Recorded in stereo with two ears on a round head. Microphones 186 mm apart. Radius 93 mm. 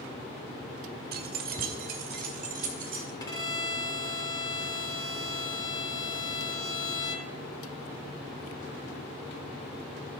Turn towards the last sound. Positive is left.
turn(degrees=20)  # may be behind; listen again after turning